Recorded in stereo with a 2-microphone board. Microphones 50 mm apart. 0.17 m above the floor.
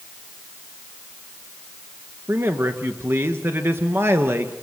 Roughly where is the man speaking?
Right.